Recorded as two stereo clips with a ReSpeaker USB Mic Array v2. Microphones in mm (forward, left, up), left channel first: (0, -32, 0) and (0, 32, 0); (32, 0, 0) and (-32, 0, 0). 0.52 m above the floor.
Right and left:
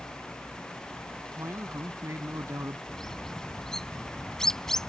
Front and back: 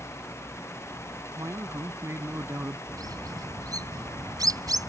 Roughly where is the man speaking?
Behind left.